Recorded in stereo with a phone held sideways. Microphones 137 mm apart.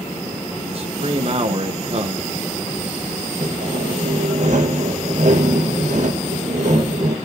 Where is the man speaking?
45° right (ahead or behind), 1.0 m.